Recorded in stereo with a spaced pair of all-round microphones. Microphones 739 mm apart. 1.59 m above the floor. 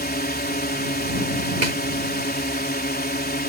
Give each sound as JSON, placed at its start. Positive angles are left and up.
{"t": 0.0, "sound": "a drone", "side_deg": 10}
{"t": 1.6, "sound": "a snare drum", "side_deg": -70}